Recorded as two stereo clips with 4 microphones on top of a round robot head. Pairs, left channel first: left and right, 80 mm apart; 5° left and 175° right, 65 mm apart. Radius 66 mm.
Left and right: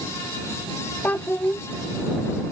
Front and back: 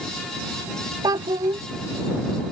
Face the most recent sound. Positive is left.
turn(degrees=165)